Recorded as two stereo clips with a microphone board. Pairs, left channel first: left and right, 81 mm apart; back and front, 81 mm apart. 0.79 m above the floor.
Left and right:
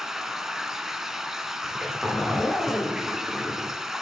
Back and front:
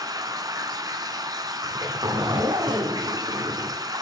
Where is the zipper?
5° left, 1.7 m.